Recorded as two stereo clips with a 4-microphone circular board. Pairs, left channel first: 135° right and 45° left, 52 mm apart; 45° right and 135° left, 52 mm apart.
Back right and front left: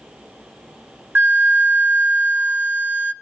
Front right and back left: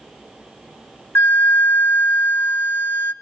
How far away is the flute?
About 0.7 m.